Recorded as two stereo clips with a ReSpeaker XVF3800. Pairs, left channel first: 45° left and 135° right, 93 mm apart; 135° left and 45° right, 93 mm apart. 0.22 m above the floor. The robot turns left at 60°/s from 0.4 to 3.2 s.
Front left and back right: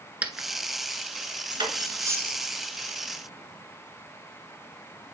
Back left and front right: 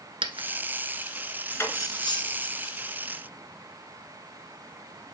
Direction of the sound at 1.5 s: 155° right.